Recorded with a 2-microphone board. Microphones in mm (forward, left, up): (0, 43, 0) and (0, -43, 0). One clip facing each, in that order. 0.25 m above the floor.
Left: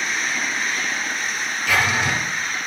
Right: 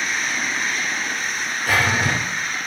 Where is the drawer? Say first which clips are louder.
Right 1 dB; 45° right (ahead or behind), 2.0 m.